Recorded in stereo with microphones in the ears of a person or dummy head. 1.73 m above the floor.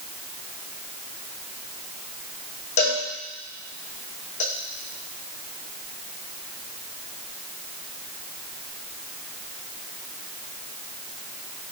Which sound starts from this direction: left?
A cowbell, at 2.8 s.